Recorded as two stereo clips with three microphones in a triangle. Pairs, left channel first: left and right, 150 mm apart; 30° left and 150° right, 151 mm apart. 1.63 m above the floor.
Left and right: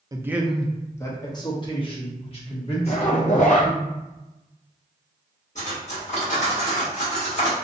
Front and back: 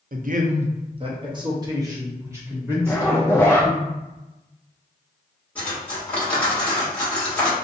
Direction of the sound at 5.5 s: 105° left.